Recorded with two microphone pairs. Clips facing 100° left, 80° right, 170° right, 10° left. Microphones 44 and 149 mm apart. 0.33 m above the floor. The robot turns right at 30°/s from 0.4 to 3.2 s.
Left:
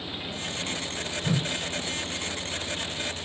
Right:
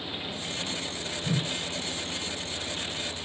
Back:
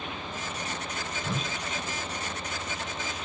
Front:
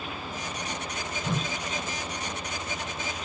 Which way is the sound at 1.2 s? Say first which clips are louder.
Left 2 dB, front 3 dB; 80° left.